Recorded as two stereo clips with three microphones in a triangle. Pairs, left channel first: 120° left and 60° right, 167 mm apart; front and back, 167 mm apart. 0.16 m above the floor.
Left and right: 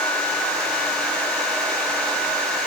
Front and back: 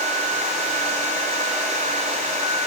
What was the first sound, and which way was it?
Only background noise.